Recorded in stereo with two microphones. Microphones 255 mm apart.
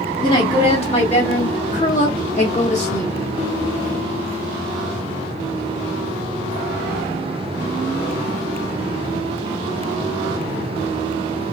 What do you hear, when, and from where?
0.2 s a woman speaking: 20° left (ahead or behind), 1.4 m; by 3.1 s 25° left (ahead or behind), 1.8 m